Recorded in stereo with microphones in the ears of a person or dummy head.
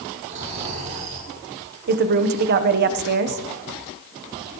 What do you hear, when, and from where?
0.3 s snoring: 40° right (ahead or behind), 4 m
1.9 s a woman speaking: 45° right (ahead or behind), 1.1 m